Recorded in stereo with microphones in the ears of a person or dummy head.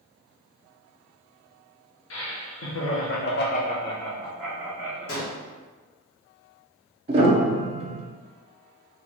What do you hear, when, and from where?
2.1 s laughter: 75° left (ahead or behind), 1.4 m; by 5.1 s 25° right (ahead or behind), 1.3 m
5.1 s a gunshot: 60° left (ahead or behind), 1.5 m
7.1 s a piano: 35° right (ahead or behind), 0.8 m